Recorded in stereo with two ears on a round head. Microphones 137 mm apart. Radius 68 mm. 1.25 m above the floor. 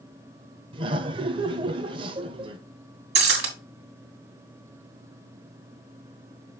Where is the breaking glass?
80° right, 2.5 m.